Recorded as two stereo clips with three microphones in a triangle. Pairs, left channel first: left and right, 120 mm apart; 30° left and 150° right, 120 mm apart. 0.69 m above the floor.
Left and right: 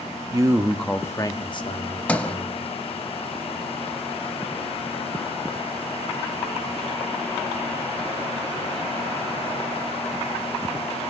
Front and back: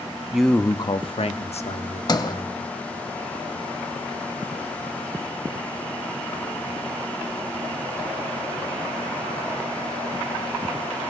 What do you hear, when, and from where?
0.3 s a man speaking: 70° right, 0.6 m; by 2.7 s 55° left, 1.9 m
2.1 s a sliding door: 20° left, 0.5 m